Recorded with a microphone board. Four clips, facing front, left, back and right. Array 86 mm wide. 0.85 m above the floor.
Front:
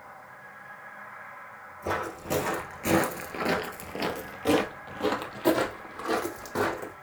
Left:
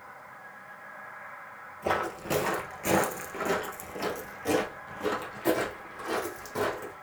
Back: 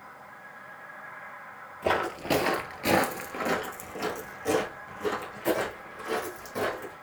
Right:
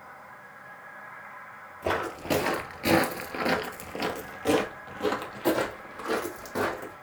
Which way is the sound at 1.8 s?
170° right.